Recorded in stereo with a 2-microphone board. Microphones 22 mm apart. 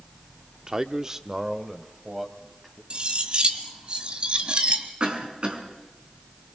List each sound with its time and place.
0.7 s a man speaking: 30° right (ahead or behind), 0.7 m; by 2.8 s 10° right (ahead or behind), 3 m
2.9 s cutlery clinking: 45° right (ahead or behind), 1.6 m
5.0 s a cough: 45° right (ahead or behind), 4.5 m